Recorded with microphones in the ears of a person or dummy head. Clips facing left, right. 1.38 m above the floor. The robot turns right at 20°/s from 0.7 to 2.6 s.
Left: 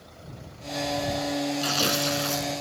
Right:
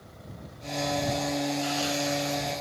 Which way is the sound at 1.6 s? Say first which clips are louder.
Left 1 dB; 60° left (ahead or behind).